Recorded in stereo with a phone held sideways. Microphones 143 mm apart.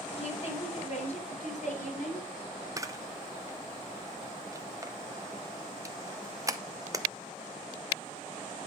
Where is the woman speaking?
45° left (ahead or behind), 3.5 m; by 2.3 s 65° left (ahead or behind), 4 m.